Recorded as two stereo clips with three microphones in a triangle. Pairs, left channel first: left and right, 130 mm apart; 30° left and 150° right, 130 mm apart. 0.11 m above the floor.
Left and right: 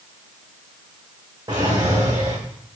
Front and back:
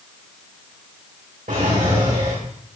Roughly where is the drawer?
Behind right.